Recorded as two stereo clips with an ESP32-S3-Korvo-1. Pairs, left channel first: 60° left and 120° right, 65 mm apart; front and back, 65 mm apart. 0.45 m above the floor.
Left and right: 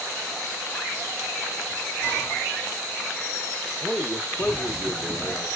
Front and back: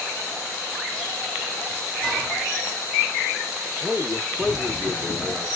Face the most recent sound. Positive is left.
turn(degrees=100)